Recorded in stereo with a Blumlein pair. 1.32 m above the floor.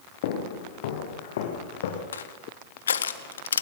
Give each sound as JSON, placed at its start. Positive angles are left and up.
{"t": 0.2, "sound": "footsteps", "azimuth_deg": 55, "distance_m": 5.0}
{"t": 2.1, "sound": "crushing", "azimuth_deg": 70, "distance_m": 1.6}